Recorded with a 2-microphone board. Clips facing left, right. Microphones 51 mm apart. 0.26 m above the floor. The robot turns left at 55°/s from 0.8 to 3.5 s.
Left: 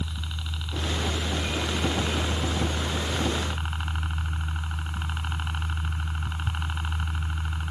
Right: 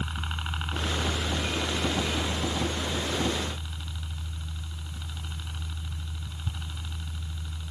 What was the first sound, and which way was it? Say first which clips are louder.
A helicopter: right 3 dB; 140° right.